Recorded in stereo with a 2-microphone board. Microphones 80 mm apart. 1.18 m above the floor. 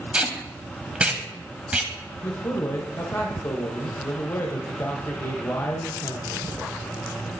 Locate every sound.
0.1 s tape being pulled: 15° right (ahead or behind), 1.1 m
2.2 s a man speaking: 40° left (ahead or behind), 0.8 m